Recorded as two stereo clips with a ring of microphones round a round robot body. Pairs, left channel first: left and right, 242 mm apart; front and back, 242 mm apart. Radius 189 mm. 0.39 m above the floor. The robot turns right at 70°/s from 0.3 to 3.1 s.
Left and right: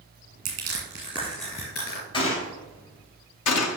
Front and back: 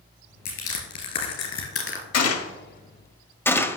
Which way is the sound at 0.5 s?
60° right.